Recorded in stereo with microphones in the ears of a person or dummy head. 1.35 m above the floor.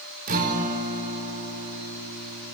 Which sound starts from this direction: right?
A guitar, at 0.3 s.